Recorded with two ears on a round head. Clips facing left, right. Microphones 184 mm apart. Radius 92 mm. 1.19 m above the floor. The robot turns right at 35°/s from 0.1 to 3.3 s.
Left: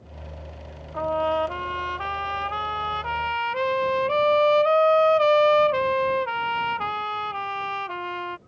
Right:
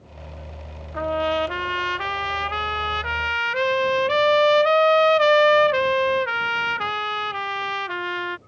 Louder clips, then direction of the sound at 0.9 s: Right 1 dB; 20° right (ahead or behind).